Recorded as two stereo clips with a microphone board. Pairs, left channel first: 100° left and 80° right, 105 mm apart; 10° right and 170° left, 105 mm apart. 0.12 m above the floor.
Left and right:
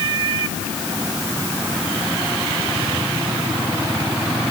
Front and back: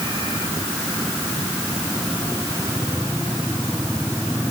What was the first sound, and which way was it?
Only background noise.